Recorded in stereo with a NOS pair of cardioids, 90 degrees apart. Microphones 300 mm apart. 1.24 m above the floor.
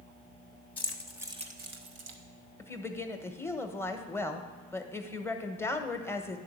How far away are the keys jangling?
About 1.1 m.